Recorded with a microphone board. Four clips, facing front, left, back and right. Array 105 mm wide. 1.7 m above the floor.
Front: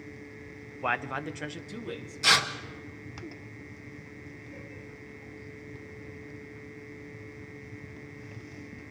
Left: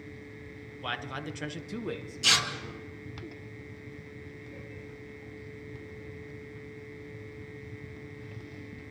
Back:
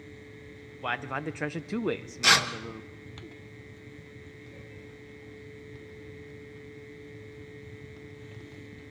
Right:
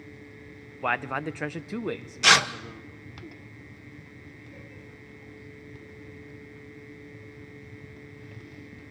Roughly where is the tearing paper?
Right.